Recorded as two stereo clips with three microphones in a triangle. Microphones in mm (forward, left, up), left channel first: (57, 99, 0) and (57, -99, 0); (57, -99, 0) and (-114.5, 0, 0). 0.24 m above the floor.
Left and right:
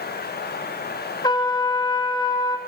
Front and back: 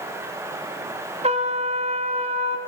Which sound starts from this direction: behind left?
A trumpet, at 1.2 s.